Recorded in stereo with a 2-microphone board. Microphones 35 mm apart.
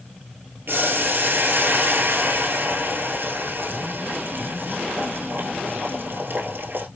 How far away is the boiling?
About 0.9 m.